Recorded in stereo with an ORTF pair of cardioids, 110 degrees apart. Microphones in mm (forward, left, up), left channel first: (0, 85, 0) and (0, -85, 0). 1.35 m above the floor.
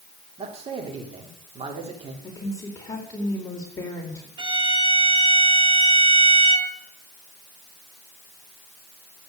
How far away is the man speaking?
About 3.5 m.